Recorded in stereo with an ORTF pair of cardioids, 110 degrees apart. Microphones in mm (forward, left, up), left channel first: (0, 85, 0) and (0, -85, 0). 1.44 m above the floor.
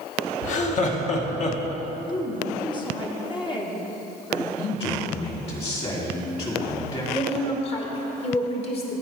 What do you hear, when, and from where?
0.4 s laughter: 45° left, 1.3 m
2.1 s a woman speaking: 30° left, 1.1 m
4.6 s a man speaking: 35° left, 2.5 m
7.1 s a woman speaking: 35° left, 1.7 m